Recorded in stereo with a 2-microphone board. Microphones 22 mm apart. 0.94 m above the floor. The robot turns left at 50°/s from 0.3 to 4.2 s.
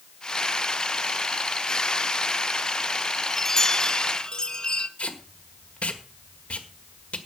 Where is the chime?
155° left, 0.9 m; by 4.9 s 110° left, 0.9 m.